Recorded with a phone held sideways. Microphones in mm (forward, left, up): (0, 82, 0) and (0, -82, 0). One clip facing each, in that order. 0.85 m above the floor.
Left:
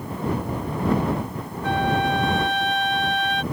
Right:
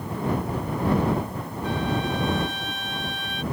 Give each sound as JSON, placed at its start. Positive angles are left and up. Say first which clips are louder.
{"t": 1.6, "sound": "a flute", "louder": "left 4 dB", "side_deg": 75}